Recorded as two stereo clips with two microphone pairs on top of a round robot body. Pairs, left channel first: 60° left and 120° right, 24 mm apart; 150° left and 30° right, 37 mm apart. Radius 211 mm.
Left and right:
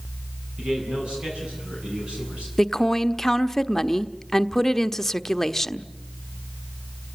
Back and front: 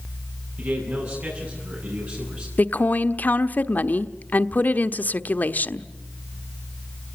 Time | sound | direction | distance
0.6 | a man speaking | 70° right | 8.5 m
2.6 | a woman speaking | 130° left | 1.2 m